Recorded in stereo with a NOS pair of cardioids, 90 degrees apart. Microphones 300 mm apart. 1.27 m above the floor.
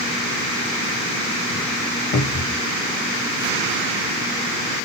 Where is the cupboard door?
60° left, 1.4 m.